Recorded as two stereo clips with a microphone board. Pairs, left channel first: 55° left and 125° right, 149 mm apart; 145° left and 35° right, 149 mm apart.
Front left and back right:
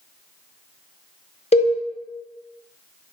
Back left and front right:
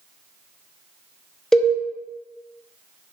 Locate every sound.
1.5 s a cowbell: 60° left, 0.5 m